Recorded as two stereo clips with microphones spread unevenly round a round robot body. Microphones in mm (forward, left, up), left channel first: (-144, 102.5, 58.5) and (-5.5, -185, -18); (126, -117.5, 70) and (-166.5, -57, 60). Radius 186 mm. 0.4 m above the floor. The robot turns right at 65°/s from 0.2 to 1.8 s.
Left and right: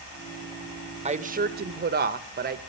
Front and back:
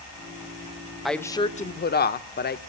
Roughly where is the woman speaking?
Right.